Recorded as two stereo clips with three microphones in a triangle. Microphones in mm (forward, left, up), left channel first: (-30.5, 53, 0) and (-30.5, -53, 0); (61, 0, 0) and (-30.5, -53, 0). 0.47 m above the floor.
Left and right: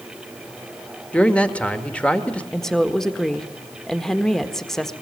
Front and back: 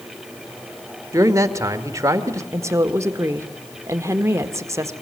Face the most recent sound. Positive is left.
turn(degrees=170)